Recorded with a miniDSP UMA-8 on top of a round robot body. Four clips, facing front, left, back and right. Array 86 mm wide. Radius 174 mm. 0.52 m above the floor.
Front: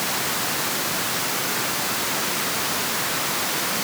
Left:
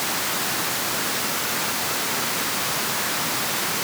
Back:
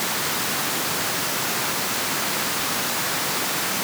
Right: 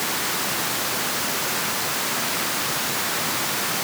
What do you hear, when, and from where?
Only background noise.